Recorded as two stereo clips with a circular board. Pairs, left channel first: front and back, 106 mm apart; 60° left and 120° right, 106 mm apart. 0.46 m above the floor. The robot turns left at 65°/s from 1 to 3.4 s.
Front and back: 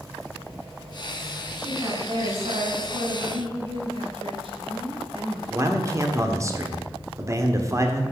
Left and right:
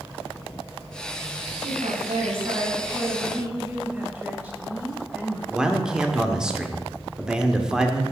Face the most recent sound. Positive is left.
turn(degrees=165)